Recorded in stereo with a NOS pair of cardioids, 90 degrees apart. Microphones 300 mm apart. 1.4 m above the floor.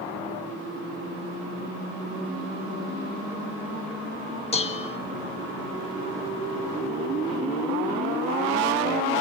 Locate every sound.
4.5 s dishes clattering: 20° left, 1.3 m